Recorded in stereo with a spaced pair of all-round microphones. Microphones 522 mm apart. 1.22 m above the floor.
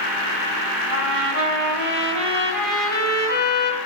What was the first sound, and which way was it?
A trumpet, 85° left.